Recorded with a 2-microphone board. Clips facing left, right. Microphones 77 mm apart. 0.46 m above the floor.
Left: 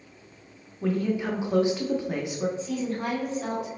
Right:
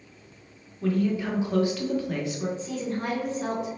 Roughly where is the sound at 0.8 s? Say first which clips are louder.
Right 1 dB; centre.